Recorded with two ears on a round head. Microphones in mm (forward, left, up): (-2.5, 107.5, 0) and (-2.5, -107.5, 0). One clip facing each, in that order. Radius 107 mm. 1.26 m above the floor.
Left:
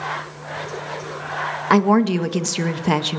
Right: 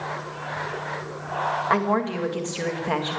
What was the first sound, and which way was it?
A woman speaking, 65° left (ahead or behind).